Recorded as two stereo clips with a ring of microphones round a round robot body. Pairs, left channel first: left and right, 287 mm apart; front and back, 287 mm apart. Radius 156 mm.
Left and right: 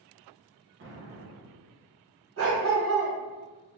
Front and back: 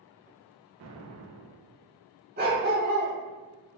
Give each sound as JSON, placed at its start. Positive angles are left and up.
{"t": 0.8, "sound": "an explosion", "azimuth_deg": -140, "distance_m": 0.7}
{"t": 2.4, "sound": "a dog barking", "azimuth_deg": -125, "distance_m": 1.6}